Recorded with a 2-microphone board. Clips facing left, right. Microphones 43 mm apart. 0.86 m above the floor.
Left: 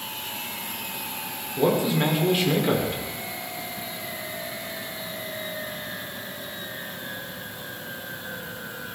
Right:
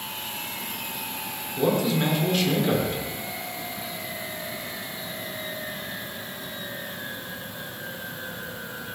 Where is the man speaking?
15° left (ahead or behind), 2.5 m.